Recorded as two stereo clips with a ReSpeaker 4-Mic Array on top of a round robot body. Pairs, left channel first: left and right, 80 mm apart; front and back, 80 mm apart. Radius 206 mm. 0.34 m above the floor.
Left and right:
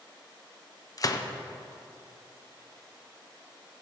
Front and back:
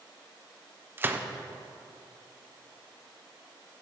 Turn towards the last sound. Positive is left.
turn(degrees=120)